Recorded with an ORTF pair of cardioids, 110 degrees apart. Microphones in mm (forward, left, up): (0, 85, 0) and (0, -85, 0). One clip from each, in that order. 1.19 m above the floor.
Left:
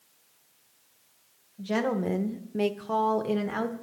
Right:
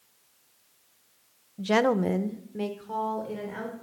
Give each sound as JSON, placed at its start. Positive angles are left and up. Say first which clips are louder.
{"t": 1.6, "sound": "a woman speaking", "louder": "right 5 dB", "azimuth_deg": -50, "distance_m": 0.7}